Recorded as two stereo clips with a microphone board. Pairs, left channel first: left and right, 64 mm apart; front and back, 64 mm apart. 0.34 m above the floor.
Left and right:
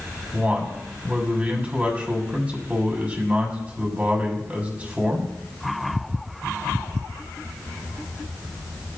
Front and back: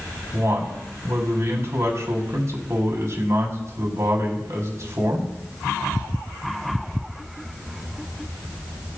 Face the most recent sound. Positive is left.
turn(degrees=-155)